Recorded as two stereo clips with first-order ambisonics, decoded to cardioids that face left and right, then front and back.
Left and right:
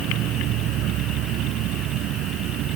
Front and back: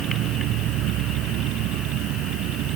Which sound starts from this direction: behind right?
An insect, at 0.0 s.